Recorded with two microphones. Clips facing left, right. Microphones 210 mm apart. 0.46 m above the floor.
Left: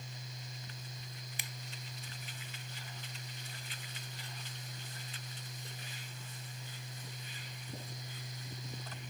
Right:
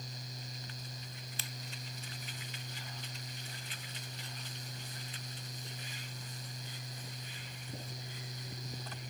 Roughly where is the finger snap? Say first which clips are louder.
Right 2 dB; centre.